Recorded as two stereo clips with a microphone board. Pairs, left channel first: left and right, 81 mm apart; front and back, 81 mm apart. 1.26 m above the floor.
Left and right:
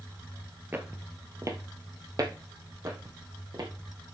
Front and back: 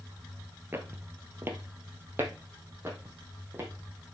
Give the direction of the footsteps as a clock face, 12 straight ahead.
5 o'clock.